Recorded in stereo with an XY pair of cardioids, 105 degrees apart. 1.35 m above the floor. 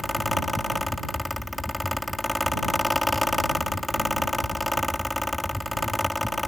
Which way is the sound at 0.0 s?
5° left.